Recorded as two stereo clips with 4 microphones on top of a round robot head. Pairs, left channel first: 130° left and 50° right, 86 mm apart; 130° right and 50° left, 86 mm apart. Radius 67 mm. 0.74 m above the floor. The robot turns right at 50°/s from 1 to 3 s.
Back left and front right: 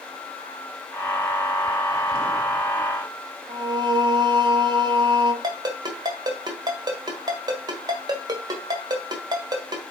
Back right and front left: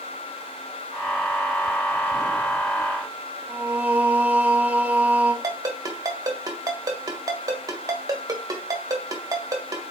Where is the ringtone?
Straight ahead, 1.7 m.